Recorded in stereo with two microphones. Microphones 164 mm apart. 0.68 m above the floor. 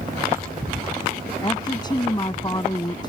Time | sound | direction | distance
1.4 | a woman speaking | 25° left (ahead or behind) | ?